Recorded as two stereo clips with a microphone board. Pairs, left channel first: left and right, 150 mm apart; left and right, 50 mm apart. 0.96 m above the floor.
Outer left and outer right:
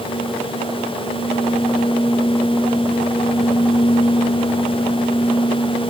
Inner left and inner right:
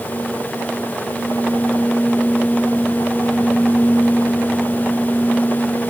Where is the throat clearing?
I don't hear throat clearing.